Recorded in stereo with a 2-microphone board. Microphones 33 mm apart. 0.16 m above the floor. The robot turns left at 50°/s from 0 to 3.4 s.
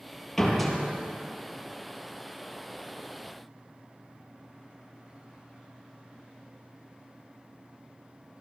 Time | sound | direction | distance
0.4 | a door slam | 10° left (ahead or behind) | 3 m